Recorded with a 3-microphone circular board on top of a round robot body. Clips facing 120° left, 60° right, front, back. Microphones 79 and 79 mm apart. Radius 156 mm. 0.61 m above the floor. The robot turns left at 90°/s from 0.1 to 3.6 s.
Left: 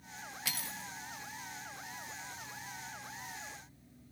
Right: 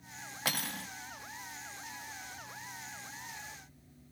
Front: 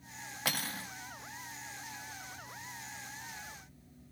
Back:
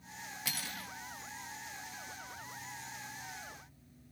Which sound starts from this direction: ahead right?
Cutlery clinking, at 0.5 s.